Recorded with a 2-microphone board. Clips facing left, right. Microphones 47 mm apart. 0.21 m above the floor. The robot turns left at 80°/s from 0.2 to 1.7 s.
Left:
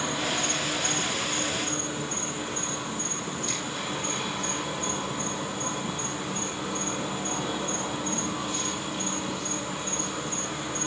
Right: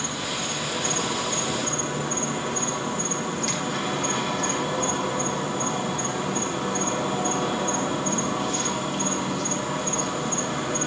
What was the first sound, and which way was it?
An insect, 10° left.